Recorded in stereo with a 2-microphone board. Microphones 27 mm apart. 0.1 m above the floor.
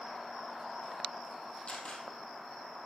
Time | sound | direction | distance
1.7 | a camera shutter | 40° left (ahead or behind) | 1.6 m